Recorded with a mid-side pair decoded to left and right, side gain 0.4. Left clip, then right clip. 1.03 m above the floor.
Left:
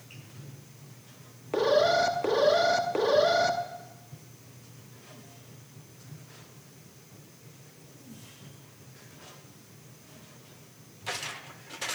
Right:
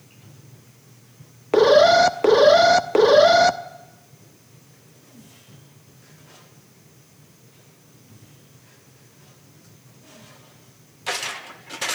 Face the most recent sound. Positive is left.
turn(degrees=-70)